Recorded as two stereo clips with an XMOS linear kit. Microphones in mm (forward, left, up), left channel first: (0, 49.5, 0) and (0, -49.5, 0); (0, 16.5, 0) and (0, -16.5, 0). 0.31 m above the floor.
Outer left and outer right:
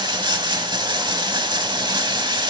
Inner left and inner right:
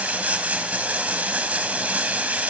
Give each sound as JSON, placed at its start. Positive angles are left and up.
{"t": 0.0, "sound": "running water", "side_deg": -50, "distance_m": 0.7}